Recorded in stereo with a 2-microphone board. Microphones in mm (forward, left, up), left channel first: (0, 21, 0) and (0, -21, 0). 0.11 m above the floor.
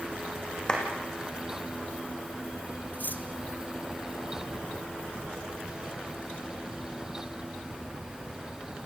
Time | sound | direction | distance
0.7 | a clap | 20° left (ahead or behind) | 4.5 m
2.9 | cutlery clinking | 50° left (ahead or behind) | 1.6 m